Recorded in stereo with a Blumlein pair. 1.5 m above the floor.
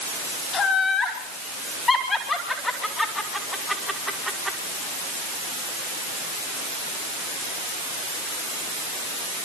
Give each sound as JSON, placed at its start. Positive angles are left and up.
{"t": 0.5, "sound": "laughter", "azimuth_deg": 25, "distance_m": 4.5}